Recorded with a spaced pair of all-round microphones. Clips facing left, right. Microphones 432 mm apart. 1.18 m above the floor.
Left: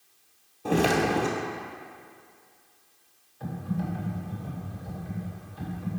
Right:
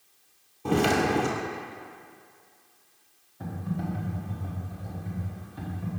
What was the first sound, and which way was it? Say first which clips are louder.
Footsteps: even; 15° right (ahead or behind).